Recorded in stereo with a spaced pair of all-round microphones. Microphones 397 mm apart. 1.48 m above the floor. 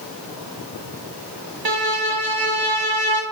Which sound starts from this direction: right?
A violin, at 1.6 s.